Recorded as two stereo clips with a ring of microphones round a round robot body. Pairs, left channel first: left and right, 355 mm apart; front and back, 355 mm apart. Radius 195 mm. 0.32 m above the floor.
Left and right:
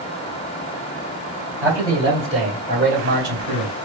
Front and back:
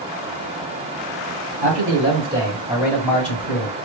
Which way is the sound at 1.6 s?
170° right.